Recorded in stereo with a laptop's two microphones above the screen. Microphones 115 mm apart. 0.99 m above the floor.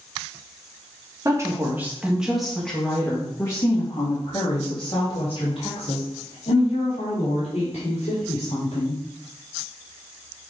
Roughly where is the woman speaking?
Right.